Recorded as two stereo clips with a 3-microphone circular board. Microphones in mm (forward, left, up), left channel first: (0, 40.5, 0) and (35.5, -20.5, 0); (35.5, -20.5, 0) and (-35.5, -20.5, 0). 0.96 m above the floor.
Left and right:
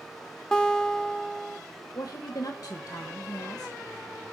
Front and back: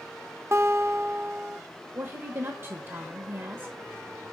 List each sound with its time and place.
0.5 s a guitar: 165° right, 0.6 m
1.9 s a woman speaking: 140° left, 0.7 m